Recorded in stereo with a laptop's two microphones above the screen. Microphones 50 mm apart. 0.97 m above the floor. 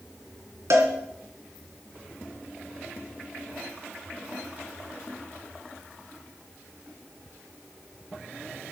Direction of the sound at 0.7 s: 70° right (ahead or behind).